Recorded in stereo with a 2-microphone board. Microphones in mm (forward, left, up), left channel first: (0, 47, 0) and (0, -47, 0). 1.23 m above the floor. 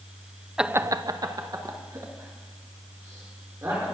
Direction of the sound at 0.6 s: 5° right (ahead or behind).